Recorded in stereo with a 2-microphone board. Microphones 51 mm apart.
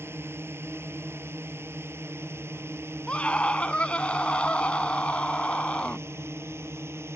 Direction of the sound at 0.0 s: 55° right (ahead or behind).